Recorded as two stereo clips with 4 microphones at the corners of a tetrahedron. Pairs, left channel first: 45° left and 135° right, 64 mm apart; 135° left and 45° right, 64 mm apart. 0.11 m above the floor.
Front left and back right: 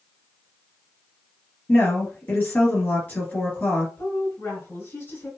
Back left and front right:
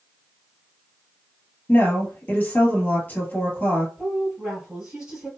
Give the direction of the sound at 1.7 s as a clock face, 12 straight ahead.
9 o'clock.